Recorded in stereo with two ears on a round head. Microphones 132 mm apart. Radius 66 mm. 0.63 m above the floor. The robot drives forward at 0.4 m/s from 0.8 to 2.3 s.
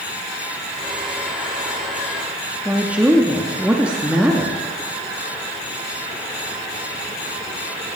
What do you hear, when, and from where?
2.6 s a woman speaking: 10° right (ahead or behind), 0.7 m